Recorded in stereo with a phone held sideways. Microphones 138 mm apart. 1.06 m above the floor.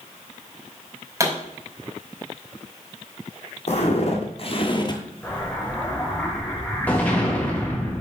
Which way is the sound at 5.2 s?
10° left (ahead or behind).